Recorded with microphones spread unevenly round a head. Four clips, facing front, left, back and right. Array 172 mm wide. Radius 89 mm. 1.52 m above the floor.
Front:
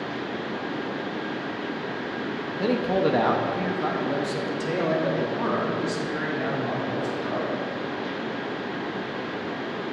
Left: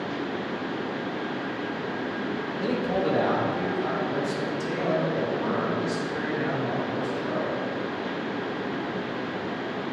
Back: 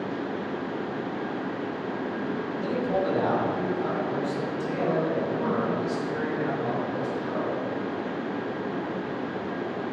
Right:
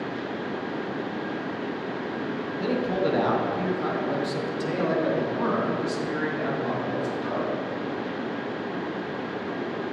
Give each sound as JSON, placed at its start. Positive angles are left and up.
{"t": 2.6, "sound": "a man speaking", "azimuth_deg": 0, "distance_m": 1.8}